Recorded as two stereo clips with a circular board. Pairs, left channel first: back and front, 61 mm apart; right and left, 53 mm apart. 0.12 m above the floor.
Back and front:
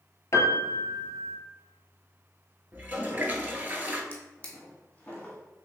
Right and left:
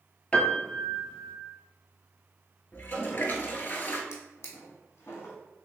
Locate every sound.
0.3 s a piano: 155° right, 0.7 m
2.7 s a toilet flushing: 55° right, 0.7 m
4.1 s a drawer: 115° right, 1.4 m